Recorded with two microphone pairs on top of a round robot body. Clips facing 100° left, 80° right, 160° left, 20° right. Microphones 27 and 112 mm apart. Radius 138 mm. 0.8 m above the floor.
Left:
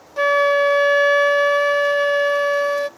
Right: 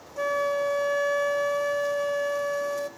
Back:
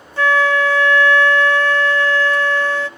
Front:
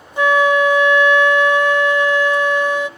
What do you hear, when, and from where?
0.2 s a flute: 55° left, 0.5 m